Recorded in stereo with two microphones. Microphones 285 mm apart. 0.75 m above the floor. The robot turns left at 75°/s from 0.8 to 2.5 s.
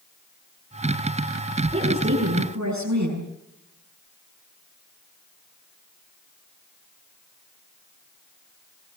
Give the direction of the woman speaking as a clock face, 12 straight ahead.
1 o'clock.